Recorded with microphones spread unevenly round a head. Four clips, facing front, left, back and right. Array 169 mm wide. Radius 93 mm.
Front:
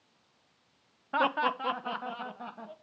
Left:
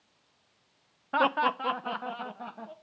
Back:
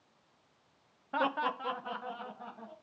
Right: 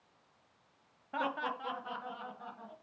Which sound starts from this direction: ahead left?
Laughter, at 1.1 s.